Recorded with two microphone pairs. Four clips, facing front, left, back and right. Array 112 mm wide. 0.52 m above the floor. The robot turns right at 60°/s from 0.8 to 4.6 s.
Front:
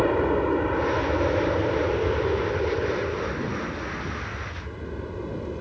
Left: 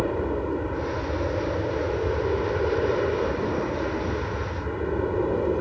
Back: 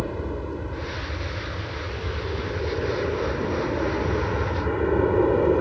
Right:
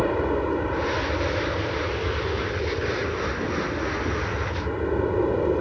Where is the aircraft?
35° right; by 5.6 s 165° right.